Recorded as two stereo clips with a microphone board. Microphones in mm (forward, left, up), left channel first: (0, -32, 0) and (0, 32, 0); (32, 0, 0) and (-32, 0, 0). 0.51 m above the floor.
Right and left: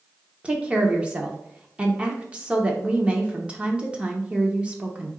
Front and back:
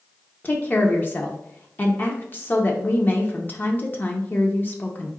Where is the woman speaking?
30° left, 0.9 m.